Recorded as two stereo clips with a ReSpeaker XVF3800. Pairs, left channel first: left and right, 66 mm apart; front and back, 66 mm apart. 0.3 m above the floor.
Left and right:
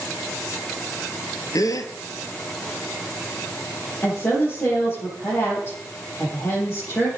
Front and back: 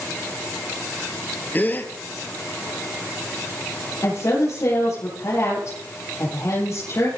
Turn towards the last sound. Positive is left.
turn(degrees=35)